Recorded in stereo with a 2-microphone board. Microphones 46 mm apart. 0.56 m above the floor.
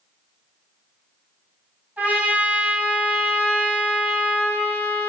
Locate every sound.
2.0 s a trumpet: 45° right (ahead or behind), 4 m